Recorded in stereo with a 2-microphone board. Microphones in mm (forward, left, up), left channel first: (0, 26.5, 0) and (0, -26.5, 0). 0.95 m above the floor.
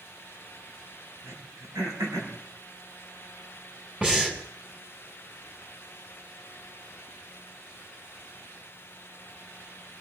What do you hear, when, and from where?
1.2 s throat clearing: 90° right, 5.5 m
4.0 s breathing: 25° right (ahead or behind), 3 m